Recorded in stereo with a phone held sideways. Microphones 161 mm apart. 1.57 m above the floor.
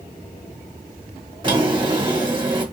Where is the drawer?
30° right (ahead or behind), 1.4 m.